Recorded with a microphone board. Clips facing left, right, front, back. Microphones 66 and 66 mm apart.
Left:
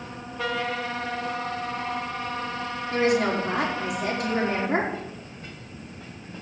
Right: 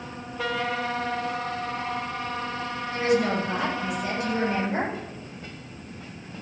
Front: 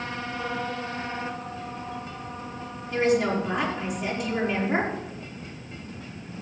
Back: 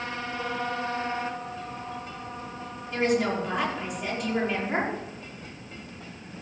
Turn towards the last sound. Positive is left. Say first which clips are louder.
# left 1 dB, front 2 dB
turn(degrees=90)